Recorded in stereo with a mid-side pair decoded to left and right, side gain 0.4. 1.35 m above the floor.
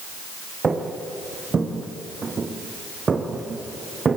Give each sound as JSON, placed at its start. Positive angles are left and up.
{"t": 0.6, "sound": "footsteps", "azimuth_deg": -40, "distance_m": 5.0}